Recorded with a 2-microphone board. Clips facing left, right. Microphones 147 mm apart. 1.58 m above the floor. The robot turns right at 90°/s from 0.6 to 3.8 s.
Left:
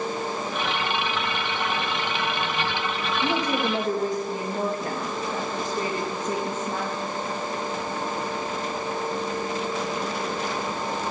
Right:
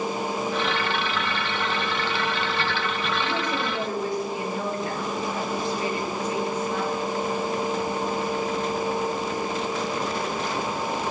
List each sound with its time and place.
3.2 s a woman speaking: 80° left, 3 m; by 7.0 s 135° left, 3 m